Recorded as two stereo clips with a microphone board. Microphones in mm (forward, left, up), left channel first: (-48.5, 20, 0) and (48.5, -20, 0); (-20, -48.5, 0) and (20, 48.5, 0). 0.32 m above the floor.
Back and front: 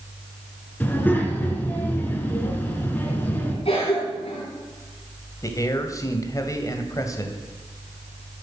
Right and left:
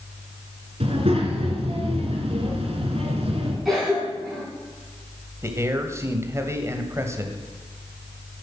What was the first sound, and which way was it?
A child speaking, 85° left.